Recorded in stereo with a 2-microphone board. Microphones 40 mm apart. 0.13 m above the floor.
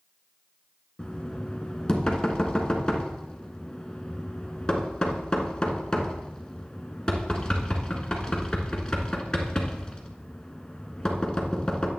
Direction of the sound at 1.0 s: 20° left (ahead or behind).